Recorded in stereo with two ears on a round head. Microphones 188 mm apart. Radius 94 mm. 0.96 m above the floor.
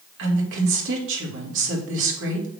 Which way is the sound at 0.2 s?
65° right (ahead or behind).